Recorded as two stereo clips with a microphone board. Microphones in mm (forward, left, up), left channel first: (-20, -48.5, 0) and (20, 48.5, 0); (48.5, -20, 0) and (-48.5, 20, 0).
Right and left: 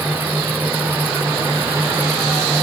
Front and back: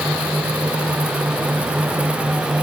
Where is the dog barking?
I don't hear a dog barking.